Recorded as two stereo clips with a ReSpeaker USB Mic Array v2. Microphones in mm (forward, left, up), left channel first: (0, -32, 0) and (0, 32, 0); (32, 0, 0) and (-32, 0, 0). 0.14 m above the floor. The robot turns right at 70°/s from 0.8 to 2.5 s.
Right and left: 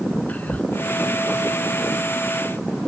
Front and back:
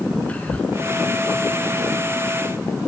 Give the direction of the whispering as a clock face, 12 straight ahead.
2 o'clock.